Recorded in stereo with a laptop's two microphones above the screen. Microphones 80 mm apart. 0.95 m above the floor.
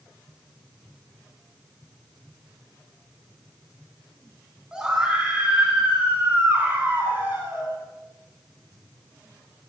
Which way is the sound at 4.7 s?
10° right (ahead or behind).